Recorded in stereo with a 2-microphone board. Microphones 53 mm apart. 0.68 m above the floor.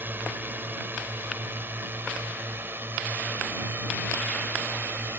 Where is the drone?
40° right (ahead or behind); by 5.2 s 45° right (ahead or behind).